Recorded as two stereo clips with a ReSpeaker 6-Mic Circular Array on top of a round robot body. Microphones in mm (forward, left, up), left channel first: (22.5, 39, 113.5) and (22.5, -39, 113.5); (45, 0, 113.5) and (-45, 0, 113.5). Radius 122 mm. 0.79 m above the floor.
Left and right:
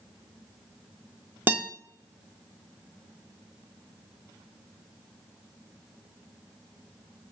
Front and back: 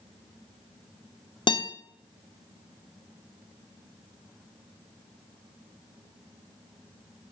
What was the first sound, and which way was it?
A guitar, 25° right.